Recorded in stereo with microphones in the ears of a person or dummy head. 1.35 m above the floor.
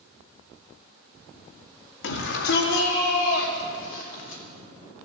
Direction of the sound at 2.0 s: 70° left (ahead or behind).